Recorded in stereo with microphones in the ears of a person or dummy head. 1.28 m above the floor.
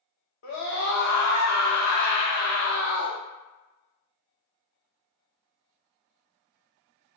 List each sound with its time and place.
0.4 s a scream: 65° left (ahead or behind), 0.8 m